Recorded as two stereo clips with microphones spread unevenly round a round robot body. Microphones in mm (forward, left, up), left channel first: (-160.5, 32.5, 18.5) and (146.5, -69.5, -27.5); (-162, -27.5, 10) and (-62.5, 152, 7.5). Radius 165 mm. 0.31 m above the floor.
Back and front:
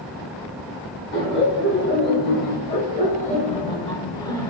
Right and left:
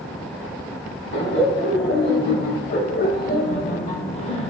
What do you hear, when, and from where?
1.1 s laughter: 140° right, 2.5 m; by 4.5 s 105° right, 1.3 m